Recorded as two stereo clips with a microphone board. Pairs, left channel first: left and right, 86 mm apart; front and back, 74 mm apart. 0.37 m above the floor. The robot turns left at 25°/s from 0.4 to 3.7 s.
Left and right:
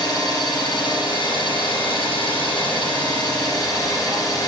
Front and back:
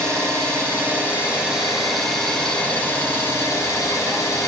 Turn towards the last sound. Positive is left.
turn(degrees=45)